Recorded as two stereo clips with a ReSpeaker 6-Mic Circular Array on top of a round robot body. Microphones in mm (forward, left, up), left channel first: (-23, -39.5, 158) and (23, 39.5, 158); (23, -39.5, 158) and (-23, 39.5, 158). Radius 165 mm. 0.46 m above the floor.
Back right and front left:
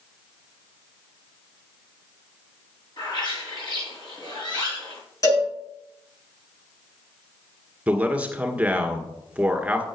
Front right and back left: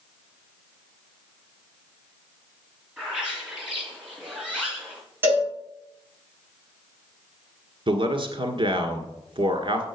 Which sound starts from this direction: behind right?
A bird, at 3.0 s.